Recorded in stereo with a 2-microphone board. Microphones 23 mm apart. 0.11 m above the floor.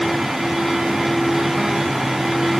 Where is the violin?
No violin in this recording.